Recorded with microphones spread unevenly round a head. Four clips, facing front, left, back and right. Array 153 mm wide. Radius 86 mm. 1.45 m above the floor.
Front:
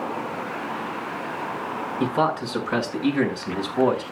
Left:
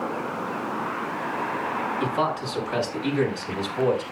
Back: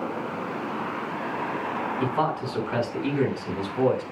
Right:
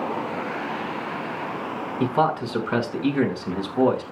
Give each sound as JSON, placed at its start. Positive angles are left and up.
{"t": 2.0, "sound": "a man speaking", "azimuth_deg": -50, "distance_m": 5.5}